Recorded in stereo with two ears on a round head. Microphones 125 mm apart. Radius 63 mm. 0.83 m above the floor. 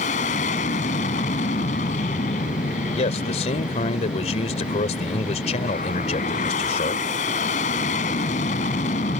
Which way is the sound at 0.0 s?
50° left (ahead or behind).